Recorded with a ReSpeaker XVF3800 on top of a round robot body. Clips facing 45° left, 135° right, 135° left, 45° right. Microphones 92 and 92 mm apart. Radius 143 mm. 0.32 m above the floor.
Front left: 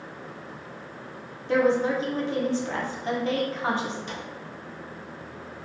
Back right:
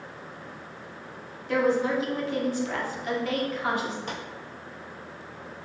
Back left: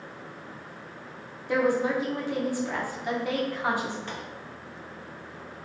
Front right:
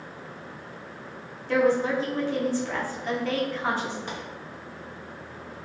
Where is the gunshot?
120° right, 0.8 m.